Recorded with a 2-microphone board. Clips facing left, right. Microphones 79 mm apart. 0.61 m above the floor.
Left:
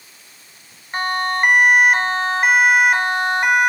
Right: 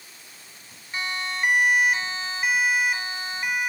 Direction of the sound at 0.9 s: 55° left (ahead or behind).